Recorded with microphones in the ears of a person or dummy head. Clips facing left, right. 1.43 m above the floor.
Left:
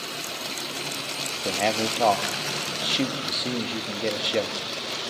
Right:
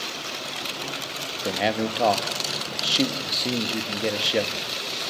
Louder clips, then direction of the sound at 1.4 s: Right 1 dB; 10° right (ahead or behind).